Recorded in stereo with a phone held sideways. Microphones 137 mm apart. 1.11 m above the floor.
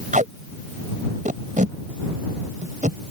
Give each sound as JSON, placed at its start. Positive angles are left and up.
{"t": 0.1, "sound": "tape being pulled", "side_deg": -70}